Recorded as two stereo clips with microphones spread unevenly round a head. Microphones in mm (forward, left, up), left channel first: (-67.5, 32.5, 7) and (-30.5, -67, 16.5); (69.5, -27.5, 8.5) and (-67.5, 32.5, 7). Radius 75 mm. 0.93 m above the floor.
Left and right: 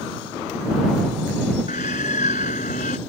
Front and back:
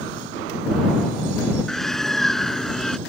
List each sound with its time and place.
1.7 s a bird: 65° left